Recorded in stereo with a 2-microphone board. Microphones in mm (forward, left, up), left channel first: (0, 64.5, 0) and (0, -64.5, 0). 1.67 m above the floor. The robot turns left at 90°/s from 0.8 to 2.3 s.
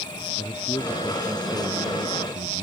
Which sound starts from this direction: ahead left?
A man speaking, at 0.4 s.